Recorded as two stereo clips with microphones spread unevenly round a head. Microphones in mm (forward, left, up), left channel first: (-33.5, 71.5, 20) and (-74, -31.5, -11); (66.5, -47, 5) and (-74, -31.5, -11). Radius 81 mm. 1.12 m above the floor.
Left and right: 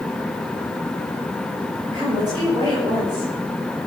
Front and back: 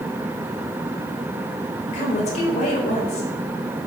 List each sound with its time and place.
1.9 s a woman speaking: 45° right, 4.5 m